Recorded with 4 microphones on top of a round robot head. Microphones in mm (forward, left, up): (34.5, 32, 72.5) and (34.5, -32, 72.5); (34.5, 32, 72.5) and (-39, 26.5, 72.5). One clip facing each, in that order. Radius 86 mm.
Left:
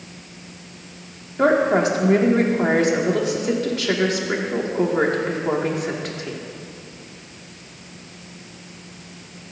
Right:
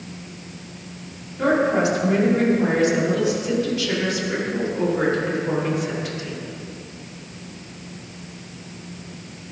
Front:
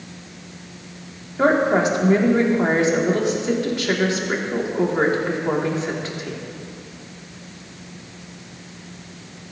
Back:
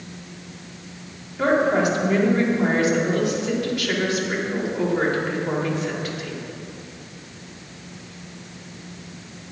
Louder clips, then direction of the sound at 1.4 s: Left 2 dB, front 2 dB; 60° left.